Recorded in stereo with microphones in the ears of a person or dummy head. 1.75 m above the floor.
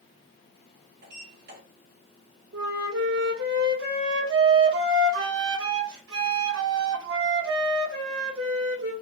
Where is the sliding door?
60° right (ahead or behind), 2 m.